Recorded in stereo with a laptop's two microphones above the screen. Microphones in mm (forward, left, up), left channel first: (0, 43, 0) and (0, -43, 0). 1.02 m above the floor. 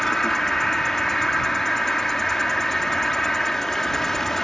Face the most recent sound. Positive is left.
turn(degrees=5)  # may be behind; listen again after turning